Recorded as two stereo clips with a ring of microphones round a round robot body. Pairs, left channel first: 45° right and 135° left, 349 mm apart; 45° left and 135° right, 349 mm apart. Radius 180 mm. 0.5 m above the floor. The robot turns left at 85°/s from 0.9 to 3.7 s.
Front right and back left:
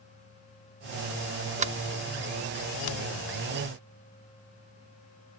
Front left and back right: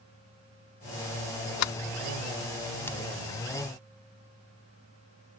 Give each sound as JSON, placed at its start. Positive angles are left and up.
{"t": 1.6, "sound": "a sliding door", "azimuth_deg": 70}